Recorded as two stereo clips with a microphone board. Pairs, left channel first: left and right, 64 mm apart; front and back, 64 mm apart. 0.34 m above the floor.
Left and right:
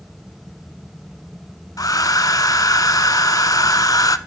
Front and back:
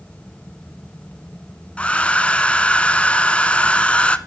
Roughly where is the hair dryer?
Left.